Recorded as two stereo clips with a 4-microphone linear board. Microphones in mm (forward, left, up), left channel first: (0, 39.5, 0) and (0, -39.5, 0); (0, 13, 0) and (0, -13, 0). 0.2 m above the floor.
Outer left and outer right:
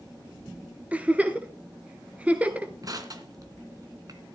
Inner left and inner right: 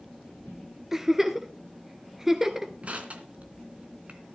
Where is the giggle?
15° right (ahead or behind), 1.7 m.